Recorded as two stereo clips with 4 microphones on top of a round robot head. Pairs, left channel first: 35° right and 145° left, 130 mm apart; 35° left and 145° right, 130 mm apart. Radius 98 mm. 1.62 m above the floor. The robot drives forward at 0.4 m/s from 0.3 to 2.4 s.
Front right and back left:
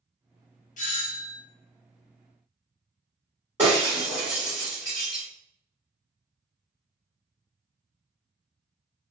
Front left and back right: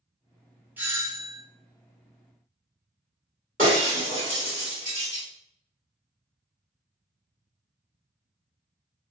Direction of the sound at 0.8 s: 65° right.